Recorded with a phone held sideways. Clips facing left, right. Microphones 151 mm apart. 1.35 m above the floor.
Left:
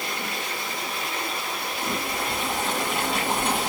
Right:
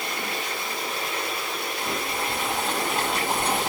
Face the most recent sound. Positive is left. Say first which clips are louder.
# left 1 dB
turn(degrees=0)  # may be behind; listen again after turning